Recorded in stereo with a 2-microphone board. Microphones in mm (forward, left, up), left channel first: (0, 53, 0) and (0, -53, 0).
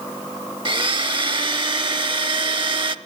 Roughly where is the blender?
Right.